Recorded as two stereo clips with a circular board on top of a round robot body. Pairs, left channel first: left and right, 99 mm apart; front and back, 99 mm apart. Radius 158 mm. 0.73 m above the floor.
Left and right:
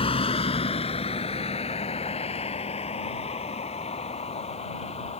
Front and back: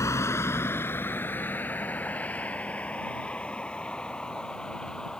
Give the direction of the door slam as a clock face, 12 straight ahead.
I don't hear a door slam.